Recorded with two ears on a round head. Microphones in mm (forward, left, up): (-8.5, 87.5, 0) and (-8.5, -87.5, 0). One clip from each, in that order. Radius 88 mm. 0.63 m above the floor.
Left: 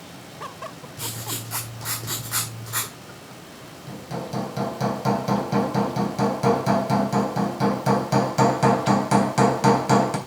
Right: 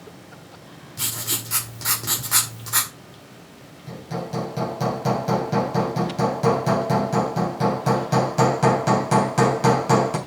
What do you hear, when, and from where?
1.0 s writing: 25° right (ahead or behind), 1.9 m
3.9 s hammering: 15° left (ahead or behind), 3.5 m